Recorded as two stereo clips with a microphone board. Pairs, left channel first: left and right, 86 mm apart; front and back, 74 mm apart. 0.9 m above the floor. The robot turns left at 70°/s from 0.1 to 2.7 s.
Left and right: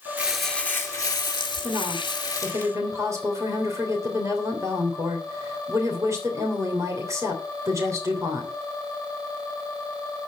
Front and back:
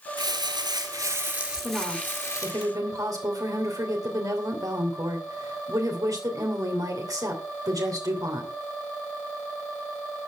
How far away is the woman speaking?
About 3 m.